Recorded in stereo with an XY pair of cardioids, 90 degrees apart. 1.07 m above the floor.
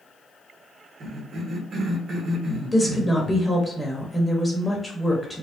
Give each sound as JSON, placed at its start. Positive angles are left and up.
{"t": 1.0, "sound": "a cough", "azimuth_deg": -60, "distance_m": 1.4}
{"t": 2.7, "sound": "a woman speaking", "azimuth_deg": 15, "distance_m": 1.1}